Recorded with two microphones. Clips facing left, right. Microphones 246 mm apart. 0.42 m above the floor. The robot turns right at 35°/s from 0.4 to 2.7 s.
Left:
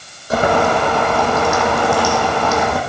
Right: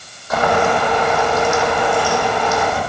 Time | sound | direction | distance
0.3 | boiling | 35° left | 3 m